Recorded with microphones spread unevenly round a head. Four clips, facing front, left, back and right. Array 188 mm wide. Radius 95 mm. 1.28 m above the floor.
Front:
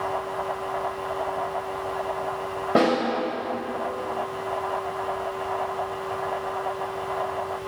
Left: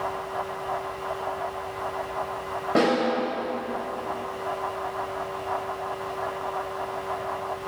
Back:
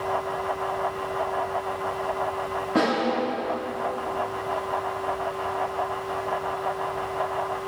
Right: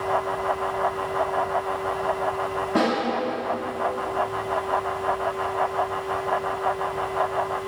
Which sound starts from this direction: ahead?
A snare drum, at 2.8 s.